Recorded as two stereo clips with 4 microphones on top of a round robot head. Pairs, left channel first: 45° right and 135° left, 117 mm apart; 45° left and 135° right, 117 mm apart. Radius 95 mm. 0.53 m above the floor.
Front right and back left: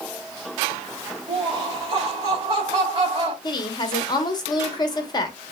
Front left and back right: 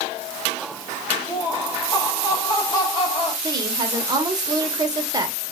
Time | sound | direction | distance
1.3 | laughter | 90° left | 1.6 m
3.4 | a woman speaking | 90° right | 0.9 m